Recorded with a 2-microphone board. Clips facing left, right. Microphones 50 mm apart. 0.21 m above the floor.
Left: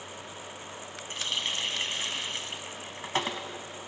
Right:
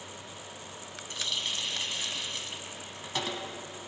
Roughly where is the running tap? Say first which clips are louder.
Left 2 dB; left.